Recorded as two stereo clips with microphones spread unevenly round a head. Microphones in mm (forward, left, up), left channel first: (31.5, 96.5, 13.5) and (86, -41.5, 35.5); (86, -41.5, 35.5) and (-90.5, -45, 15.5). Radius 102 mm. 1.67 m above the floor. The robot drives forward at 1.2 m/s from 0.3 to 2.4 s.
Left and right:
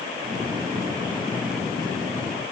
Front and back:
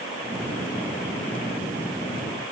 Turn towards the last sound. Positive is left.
No sound to turn to.